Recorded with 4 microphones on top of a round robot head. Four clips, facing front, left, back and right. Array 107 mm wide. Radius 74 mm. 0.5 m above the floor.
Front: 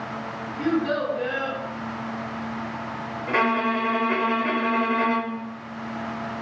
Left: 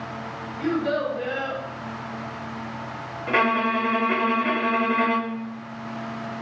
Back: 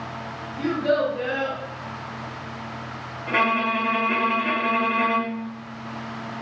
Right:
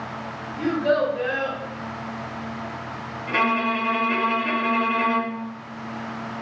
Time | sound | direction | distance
0.6 | a child speaking | 120° right | 1.2 m
3.3 | a violin | 80° left | 0.8 m